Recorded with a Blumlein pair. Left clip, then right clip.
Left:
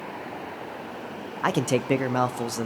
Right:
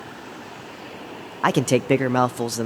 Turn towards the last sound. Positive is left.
turn(degrees=-15)